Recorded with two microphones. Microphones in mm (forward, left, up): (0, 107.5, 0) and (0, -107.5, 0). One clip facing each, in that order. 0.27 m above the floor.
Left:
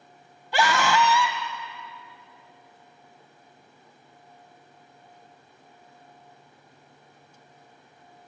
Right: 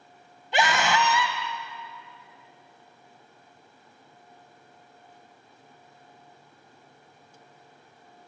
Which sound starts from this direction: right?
A scream, at 0.5 s.